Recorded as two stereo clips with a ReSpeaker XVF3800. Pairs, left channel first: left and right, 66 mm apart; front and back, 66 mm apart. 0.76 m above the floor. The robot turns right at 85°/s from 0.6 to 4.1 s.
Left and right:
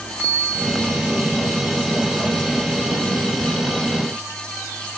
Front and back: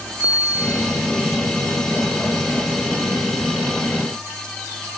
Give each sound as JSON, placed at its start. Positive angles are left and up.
{"t": 0.2, "sound": "a bicycle bell", "azimuth_deg": -155, "distance_m": 8.0}